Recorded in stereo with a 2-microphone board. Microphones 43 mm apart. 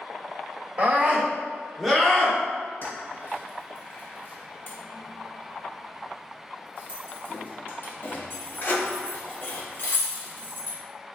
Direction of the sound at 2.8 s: 50° left (ahead or behind).